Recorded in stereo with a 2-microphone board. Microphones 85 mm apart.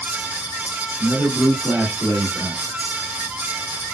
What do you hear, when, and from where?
1.0 s a man speaking: 15° left (ahead or behind), 1.9 m; by 2.6 s 40° right (ahead or behind), 2 m